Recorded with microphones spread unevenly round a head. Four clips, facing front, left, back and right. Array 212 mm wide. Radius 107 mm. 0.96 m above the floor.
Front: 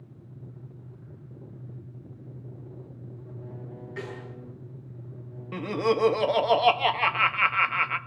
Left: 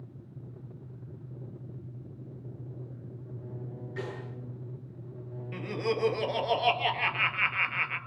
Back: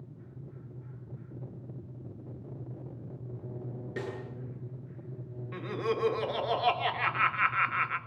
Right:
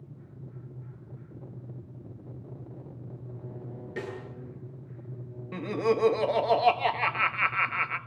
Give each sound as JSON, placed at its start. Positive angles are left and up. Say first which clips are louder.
{"t": 4.0, "sound": "a snare drum", "louder": "right 2 dB, even", "azimuth_deg": -155, "distance_m": 9.0}
{"t": 5.5, "sound": "laughter", "louder": "right 5 dB, front 7 dB", "azimuth_deg": -30, "distance_m": 1.7}